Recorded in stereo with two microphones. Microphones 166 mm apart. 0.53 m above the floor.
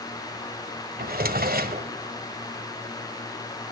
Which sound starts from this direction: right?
A drawer, at 1.0 s.